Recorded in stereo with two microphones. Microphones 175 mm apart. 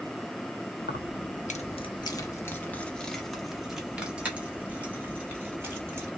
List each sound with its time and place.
0.8 s keys jangling: 70° left (ahead or behind), 0.6 m; by 6.1 s 15° right (ahead or behind), 2.5 m